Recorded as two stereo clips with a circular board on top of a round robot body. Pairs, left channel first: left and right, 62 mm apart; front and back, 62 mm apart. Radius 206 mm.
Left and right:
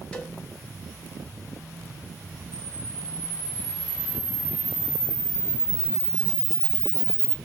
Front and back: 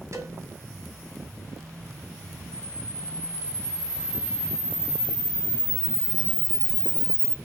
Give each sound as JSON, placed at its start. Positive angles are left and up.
{"t": 0.1, "sound": "a cowbell", "azimuth_deg": 165, "distance_m": 1.4}
{"t": 2.5, "sound": "a camera shutter", "azimuth_deg": -70, "distance_m": 1.3}